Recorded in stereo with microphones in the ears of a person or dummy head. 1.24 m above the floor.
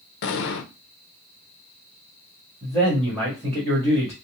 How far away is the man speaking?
About 1.6 m.